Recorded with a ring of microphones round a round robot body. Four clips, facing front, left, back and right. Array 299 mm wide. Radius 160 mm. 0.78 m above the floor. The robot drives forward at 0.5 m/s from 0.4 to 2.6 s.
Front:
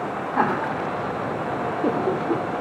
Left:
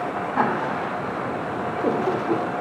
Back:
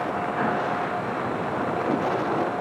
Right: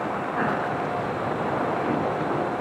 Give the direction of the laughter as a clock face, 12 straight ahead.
11 o'clock.